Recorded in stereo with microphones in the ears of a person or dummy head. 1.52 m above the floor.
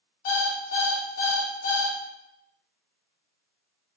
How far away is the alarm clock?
About 1.2 m.